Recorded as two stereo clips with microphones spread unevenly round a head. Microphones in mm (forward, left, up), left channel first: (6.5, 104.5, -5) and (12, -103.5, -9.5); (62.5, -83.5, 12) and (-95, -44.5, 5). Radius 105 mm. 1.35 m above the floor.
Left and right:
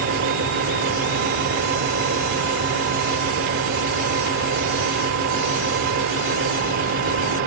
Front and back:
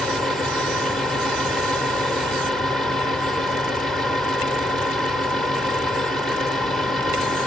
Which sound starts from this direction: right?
A fan, at 0.0 s.